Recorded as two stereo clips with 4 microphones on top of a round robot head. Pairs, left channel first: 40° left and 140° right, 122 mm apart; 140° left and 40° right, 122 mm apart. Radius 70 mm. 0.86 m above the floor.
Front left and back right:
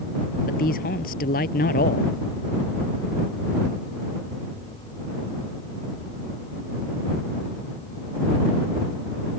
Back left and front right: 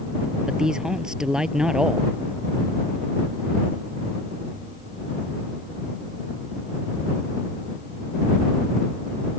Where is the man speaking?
45° left.